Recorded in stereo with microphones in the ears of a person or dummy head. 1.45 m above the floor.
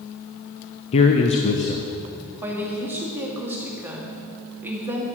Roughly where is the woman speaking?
Centre.